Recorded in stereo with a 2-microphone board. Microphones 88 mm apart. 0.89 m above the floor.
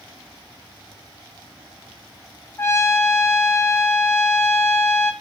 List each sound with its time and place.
2.6 s a trumpet: 25° left (ahead or behind), 0.5 m